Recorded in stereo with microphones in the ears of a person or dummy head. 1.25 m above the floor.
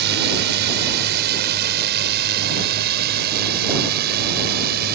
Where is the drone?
55° right (ahead or behind); by 5.0 s 50° right (ahead or behind).